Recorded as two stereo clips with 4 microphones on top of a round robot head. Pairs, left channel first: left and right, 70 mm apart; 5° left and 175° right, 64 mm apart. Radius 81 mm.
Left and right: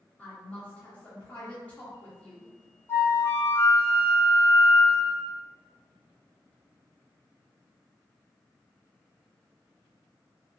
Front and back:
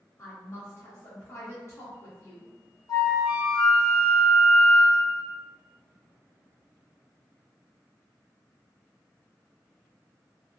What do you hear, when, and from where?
0.2 s a woman speaking: 25° left, 1.0 m
2.9 s a flute: 35° left, 0.9 m